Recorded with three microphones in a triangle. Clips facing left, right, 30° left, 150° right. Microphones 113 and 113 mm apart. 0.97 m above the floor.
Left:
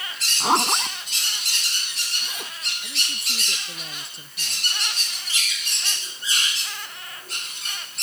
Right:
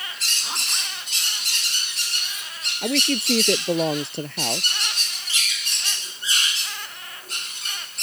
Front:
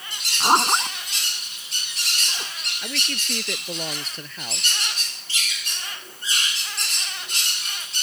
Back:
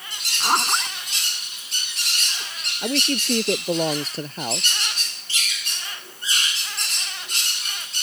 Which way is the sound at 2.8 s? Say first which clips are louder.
Right 15 dB, back 10 dB; 100° right.